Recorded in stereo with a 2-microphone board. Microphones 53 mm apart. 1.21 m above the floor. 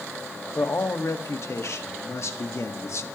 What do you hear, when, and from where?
0.6 s a man speaking: 60° left (ahead or behind), 1.7 m